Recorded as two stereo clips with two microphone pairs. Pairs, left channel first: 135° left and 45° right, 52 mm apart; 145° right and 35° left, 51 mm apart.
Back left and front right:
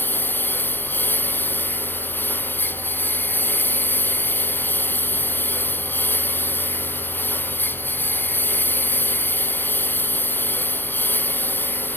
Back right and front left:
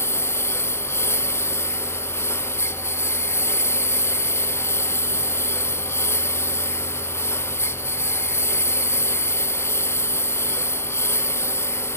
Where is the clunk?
No clunk in this recording.